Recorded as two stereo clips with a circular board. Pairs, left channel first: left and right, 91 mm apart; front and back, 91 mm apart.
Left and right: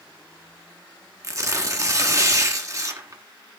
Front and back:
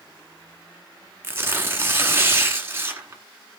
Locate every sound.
1.2 s tearing paper: 125° right, 1.7 m